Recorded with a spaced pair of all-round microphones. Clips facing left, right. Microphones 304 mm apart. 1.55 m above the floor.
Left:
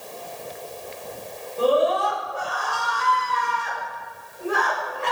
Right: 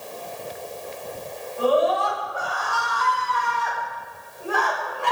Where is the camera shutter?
I don't hear a camera shutter.